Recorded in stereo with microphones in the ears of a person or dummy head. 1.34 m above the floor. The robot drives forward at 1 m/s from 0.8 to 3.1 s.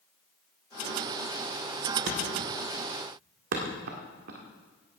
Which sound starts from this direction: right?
A thud, at 2.1 s.